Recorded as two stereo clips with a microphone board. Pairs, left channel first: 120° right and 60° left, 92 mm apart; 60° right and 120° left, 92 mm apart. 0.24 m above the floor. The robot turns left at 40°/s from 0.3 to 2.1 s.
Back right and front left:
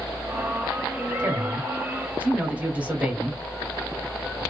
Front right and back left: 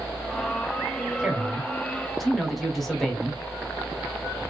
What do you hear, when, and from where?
1.2 s a man speaking: 60° left, 1.0 m; by 3.4 s 25° left, 1.0 m